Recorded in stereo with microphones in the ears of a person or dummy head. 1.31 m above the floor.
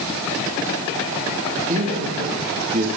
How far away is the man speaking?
About 2.5 m.